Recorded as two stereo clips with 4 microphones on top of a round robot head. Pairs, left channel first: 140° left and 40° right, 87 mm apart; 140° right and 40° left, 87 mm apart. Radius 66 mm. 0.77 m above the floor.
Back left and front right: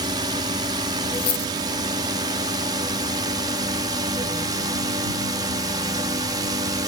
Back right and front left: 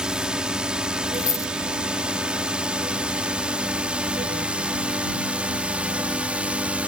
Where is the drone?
40° right; by 6.9 s 30° right.